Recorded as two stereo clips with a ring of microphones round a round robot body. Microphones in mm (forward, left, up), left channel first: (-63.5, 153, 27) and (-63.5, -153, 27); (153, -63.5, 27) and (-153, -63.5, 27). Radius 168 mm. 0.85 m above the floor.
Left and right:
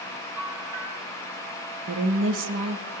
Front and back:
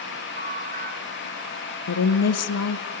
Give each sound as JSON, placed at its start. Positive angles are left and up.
{"t": 0.4, "sound": "a bell", "azimuth_deg": -120, "distance_m": 6.5}
{"t": 1.9, "sound": "a woman speaking", "azimuth_deg": -35, "distance_m": 0.8}